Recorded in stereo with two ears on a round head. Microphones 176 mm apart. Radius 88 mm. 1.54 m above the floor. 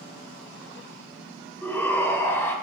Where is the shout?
5° left (ahead or behind), 2 m.